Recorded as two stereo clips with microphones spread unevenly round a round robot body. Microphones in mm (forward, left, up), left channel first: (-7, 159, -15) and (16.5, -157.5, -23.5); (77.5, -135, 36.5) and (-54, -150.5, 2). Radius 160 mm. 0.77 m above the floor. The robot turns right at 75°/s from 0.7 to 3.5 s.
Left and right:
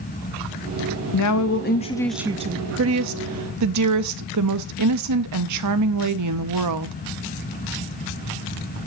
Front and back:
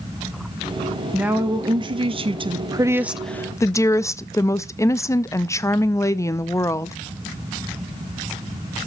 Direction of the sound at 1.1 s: 110° left.